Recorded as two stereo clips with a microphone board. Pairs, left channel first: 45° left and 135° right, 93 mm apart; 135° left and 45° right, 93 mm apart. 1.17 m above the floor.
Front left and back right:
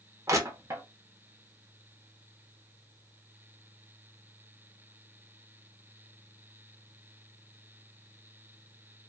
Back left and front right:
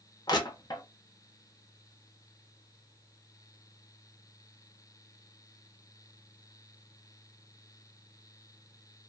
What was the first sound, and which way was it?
Crushing, 170° left.